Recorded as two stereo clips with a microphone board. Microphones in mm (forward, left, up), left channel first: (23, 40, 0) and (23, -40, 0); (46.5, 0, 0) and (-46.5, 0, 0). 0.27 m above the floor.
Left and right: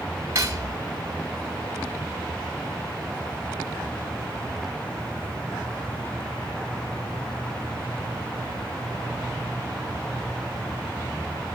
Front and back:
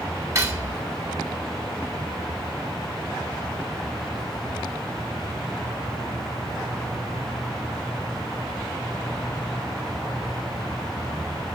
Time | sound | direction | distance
0.3 | cutlery clinking | 130° right | 1.1 m